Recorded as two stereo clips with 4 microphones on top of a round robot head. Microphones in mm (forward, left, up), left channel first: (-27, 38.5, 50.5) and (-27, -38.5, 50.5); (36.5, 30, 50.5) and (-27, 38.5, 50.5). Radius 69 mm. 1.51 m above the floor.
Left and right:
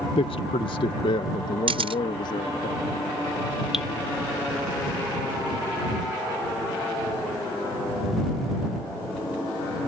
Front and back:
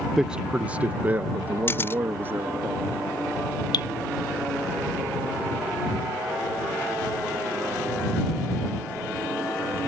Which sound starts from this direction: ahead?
Dripping, at 3.7 s.